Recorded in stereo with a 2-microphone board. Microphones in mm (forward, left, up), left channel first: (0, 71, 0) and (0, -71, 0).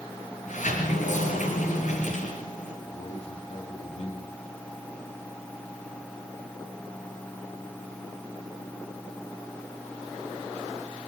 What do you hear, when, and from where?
0.5 s a sliding door: 70° left (ahead or behind), 7.5 m
2.8 s a man speaking: 50° left (ahead or behind), 5 m